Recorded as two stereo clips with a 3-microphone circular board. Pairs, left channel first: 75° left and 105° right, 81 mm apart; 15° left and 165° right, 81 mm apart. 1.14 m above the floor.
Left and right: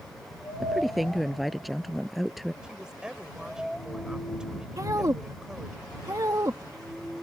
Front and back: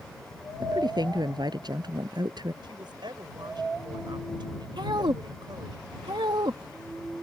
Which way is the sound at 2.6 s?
175° left.